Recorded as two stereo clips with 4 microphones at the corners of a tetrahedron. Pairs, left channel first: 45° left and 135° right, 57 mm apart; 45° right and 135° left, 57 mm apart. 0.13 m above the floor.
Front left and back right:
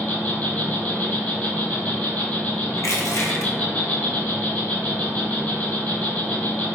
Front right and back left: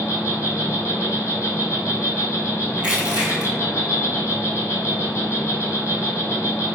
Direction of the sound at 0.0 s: 15° right.